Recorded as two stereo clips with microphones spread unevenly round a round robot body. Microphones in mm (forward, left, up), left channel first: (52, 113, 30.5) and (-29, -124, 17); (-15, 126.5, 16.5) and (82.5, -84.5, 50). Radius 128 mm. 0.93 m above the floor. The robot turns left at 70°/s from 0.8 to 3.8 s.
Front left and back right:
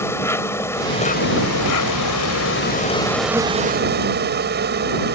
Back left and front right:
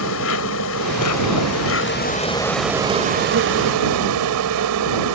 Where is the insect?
150° left; by 5.2 s 60° right.